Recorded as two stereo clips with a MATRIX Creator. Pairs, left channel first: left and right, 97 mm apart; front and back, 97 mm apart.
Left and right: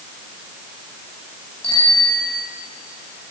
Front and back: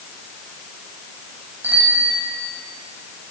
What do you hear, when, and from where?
1.6 s a bicycle bell: 110° left, 8.5 m